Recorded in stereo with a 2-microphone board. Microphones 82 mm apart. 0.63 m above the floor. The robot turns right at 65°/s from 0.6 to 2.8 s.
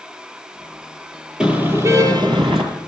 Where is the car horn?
170° right, 6.5 m; by 2.6 s 90° right, 6.5 m.